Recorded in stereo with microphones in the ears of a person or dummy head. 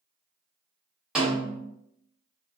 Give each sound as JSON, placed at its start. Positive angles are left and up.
{"t": 1.1, "sound": "a snare drum", "side_deg": 0, "distance_m": 1.0}